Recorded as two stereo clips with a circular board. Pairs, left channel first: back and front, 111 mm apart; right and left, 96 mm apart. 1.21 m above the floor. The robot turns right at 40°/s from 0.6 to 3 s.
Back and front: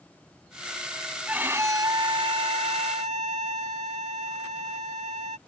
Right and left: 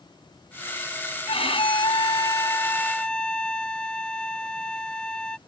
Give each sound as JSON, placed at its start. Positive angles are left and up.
{"t": 1.3, "sound": "a violin", "azimuth_deg": -80}